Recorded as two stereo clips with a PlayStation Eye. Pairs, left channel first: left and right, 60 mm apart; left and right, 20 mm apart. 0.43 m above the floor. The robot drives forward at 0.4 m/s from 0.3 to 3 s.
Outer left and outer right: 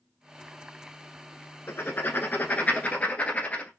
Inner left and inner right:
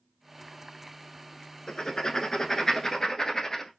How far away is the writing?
About 0.7 m.